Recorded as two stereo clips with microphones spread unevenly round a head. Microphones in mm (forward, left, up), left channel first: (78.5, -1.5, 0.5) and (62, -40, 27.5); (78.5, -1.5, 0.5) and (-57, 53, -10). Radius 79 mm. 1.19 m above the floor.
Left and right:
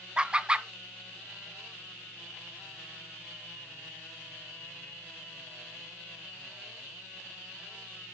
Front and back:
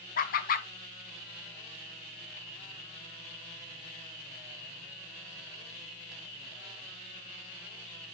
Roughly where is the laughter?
Ahead.